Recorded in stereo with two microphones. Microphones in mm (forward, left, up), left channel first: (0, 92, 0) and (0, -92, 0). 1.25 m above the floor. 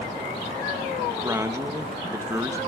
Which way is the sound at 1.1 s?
15° right (ahead or behind).